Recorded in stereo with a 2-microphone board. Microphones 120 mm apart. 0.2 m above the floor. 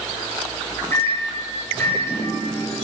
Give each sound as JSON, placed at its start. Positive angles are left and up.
{"t": 0.9, "sound": "a microwave", "side_deg": 20, "distance_m": 4.0}